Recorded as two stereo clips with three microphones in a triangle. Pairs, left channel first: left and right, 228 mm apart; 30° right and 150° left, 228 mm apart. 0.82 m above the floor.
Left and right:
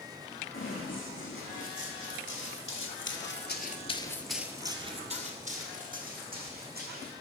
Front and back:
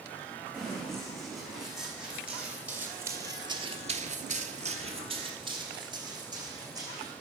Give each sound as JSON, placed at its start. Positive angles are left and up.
{"t": 0.5, "sound": "running footsteps", "azimuth_deg": 60, "distance_m": 4.0}